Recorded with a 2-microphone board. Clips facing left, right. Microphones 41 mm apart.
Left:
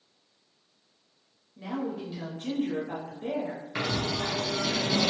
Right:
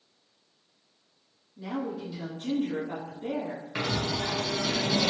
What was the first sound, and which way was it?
A woman speaking, 40° left (ahead or behind).